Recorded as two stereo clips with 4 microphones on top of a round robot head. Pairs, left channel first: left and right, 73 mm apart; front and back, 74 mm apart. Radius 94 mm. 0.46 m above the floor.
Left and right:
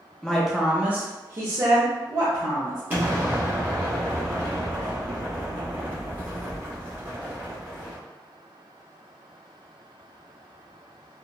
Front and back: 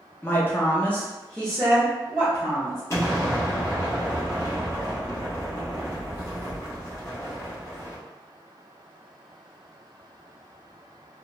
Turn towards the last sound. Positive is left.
turn(degrees=-30)